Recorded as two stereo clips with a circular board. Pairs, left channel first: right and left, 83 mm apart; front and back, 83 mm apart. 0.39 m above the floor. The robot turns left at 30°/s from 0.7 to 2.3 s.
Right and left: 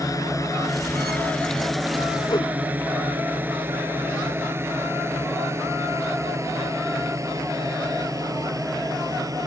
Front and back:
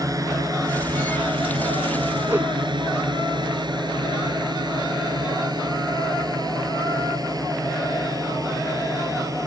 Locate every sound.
0.0 s a drone: 135° right; by 9.5 s 135° left
2.3 s a whoosh: 115° right; by 2.5 s 120° right